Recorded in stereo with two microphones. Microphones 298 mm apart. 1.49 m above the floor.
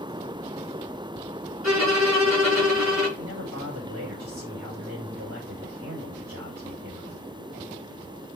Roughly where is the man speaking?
Right.